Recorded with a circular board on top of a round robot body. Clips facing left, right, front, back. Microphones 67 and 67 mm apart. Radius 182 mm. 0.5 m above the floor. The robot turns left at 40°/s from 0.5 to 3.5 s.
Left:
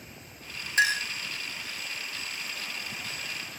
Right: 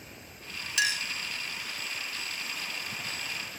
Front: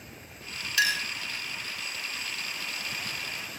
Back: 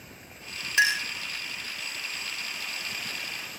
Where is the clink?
125° left, 0.7 m; by 1.1 s 110° left, 0.7 m.